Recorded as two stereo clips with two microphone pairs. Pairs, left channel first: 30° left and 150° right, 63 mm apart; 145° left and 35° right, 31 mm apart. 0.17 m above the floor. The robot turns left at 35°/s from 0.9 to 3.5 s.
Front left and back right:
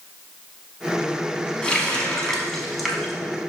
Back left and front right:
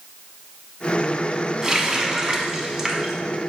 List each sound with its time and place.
1.6 s a running tap: 20° right, 0.7 m; by 3.1 s 70° right, 0.7 m